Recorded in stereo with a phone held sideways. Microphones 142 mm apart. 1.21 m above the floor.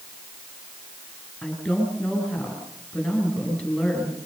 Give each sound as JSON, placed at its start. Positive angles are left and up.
{"t": 1.4, "sound": "a woman speaking", "side_deg": 5, "distance_m": 8.5}